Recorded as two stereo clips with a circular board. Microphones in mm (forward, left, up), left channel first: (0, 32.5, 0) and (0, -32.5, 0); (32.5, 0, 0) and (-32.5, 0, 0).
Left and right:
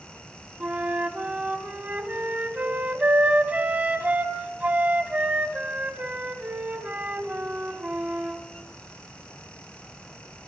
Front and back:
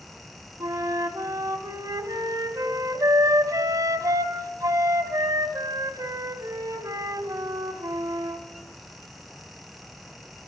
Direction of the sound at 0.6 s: 155° right.